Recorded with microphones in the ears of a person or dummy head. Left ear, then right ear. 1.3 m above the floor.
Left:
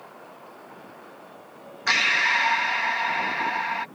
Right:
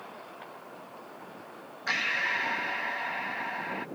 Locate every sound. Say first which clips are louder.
1.9 s breathing: left 8 dB; 35° left (ahead or behind)